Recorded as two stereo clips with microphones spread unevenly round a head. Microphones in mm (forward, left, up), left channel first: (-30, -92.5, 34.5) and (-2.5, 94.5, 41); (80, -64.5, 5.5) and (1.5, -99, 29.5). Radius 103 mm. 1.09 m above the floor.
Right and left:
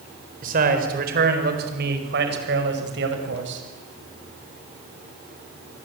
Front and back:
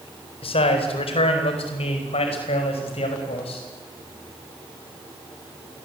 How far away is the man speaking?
About 4 m.